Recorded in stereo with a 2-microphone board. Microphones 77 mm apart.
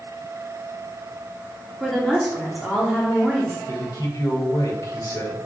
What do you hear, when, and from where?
1.8 s a woman speaking: centre (ahead or behind), 3 m
3.7 s a man speaking: 55° left (ahead or behind), 3 m